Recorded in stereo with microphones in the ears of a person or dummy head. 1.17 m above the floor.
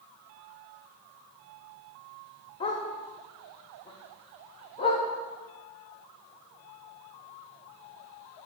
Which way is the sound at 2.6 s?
30° left (ahead or behind).